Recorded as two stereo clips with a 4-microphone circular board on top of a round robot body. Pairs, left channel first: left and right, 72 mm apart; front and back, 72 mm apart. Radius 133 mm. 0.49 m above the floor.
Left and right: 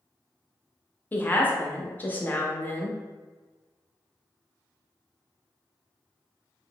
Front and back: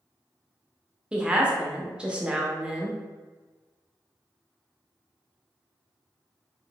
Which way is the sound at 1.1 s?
115° left.